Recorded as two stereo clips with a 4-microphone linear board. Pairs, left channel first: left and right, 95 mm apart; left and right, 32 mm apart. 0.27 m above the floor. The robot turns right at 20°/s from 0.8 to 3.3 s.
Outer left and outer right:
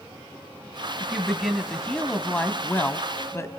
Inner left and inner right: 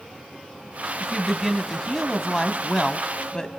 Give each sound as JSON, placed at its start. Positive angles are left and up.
{"t": 1.0, "sound": "a woman speaking", "azimuth_deg": -10, "distance_m": 1.6}